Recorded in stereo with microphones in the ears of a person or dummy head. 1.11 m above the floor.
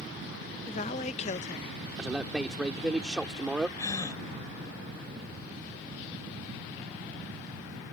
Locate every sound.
0.7 s a woman speaking: 40° left (ahead or behind)
2.0 s a man speaking: 5° right (ahead or behind)
3.8 s a gasp: 20° left (ahead or behind)